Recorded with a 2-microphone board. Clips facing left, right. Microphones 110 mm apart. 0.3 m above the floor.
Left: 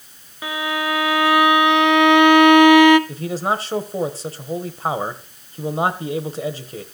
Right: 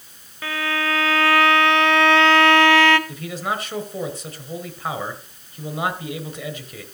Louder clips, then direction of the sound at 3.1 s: Left 5 dB; 35° left (ahead or behind).